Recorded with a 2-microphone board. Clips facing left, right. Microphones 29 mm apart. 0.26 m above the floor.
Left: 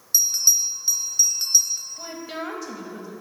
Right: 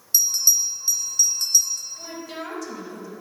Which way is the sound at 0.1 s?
10° left (ahead or behind).